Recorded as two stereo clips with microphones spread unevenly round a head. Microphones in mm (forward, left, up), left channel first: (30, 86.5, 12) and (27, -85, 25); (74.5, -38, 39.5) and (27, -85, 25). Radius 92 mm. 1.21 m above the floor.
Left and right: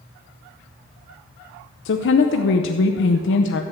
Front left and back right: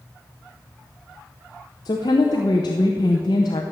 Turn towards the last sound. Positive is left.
turn(degrees=90)